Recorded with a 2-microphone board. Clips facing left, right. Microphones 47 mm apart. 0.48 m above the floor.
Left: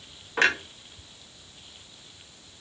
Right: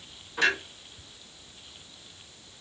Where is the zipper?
No zipper in this recording.